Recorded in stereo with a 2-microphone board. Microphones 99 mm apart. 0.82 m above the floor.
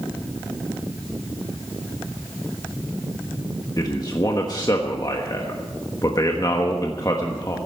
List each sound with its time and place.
3.8 s a man speaking: 40° left (ahead or behind), 1.2 m